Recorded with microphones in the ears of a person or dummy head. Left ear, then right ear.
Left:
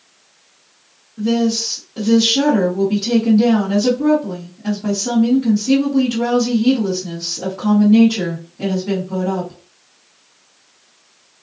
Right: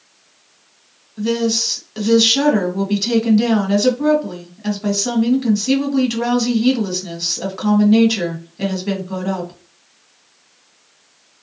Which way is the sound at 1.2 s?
65° right (ahead or behind).